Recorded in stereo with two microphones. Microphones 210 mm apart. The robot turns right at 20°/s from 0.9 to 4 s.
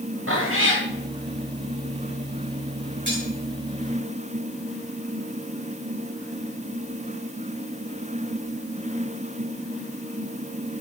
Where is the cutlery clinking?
60° right (ahead or behind), 6.5 m; by 3.3 s 65° right (ahead or behind), 6.5 m.